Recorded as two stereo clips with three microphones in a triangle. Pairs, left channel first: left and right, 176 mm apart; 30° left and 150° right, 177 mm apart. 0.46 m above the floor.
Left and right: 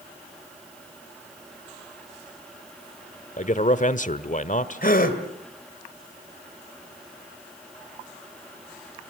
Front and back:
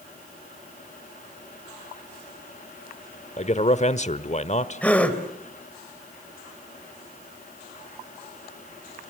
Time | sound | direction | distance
3.4 | a man speaking | 65° left | 1.2 m
4.8 | a gasp | 110° left | 2.5 m